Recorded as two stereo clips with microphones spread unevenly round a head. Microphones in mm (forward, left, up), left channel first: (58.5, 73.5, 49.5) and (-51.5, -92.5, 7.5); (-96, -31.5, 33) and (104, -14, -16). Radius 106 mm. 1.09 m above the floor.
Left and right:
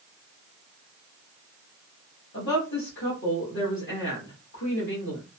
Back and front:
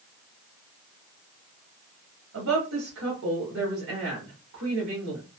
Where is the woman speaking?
20° left, 1.7 m.